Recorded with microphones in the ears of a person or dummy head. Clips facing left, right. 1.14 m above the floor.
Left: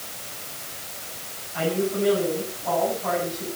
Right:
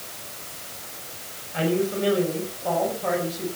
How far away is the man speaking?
About 6.5 m.